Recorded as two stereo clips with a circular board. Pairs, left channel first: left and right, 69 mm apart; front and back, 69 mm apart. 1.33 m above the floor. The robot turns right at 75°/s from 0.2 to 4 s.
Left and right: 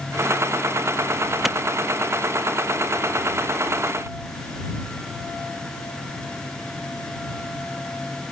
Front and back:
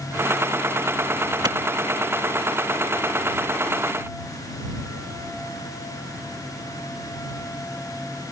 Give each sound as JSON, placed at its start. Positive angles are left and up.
{"t": 1.4, "sound": "a clap", "azimuth_deg": 180}